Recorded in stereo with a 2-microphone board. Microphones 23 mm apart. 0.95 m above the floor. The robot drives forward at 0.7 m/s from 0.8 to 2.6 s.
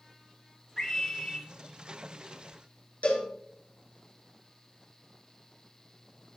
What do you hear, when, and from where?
0.8 s a scream: 25° left (ahead or behind), 3.5 m; by 1.5 s 30° left (ahead or behind), 3 m
3.0 s a cowbell: 80° left, 4 m